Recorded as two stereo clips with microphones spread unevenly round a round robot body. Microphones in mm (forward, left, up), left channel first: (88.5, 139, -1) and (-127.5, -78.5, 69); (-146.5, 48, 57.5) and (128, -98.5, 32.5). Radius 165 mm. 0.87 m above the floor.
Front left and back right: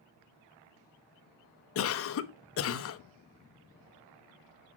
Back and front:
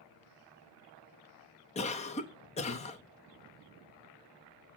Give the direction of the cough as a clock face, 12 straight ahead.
9 o'clock.